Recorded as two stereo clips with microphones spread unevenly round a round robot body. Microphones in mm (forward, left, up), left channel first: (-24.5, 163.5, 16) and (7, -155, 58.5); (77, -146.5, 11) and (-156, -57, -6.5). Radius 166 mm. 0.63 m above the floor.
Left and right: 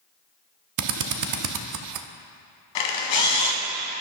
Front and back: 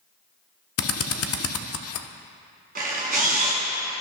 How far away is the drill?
About 0.7 m.